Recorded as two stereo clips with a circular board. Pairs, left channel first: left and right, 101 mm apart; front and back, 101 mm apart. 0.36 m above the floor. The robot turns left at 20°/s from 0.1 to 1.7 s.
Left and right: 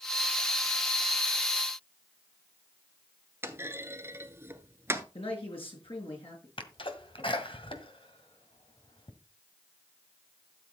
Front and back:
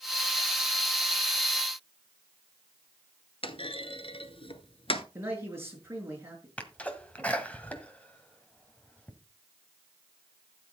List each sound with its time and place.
3.4 s a clunk: 25° right, 0.9 m
5.2 s a man speaking: 115° left, 5 m
6.6 s a sneeze: 75° left, 1.8 m